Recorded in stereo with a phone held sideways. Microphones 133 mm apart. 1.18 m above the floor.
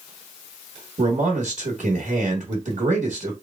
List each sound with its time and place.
1.0 s a man speaking: 70° right (ahead or behind), 1.3 m